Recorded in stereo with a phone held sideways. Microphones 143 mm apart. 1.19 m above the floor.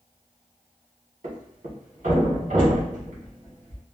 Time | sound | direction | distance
1.2 | a thud | 70° right (ahead or behind) | 1.4 m